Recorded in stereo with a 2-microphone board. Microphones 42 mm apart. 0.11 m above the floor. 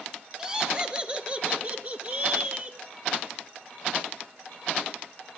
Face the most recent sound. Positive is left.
turn(degrees=-40)  # may be behind; listen again after turning